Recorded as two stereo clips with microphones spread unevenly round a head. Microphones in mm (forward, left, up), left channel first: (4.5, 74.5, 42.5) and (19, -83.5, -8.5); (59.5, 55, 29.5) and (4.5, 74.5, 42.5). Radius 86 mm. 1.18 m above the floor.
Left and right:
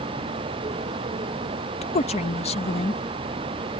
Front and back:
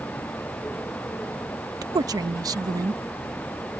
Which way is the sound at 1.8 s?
155° left.